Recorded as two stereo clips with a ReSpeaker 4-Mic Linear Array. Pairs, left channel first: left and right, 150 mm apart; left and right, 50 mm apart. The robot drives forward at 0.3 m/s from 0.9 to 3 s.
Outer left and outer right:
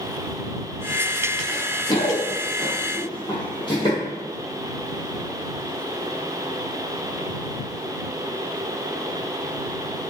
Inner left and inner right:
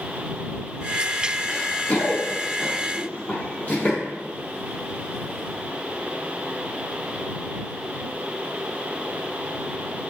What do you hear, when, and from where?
1.5 s running footsteps: 25° left (ahead or behind), 1.0 m; by 4.0 s 30° left (ahead or behind), 1.7 m